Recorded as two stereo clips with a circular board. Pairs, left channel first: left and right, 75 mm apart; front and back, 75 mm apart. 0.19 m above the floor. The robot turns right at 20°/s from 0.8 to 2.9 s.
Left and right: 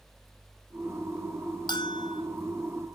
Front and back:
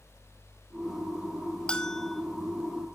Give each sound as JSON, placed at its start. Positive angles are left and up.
{"t": 1.7, "sound": "a bell", "azimuth_deg": 80, "distance_m": 1.6}